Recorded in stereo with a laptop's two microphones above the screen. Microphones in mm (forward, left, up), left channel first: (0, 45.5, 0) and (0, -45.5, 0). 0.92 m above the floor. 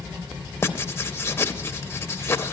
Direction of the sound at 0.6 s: 25° left (ahead or behind).